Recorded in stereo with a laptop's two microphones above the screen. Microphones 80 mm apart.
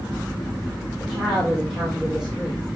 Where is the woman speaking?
10° right (ahead or behind), 3.5 m.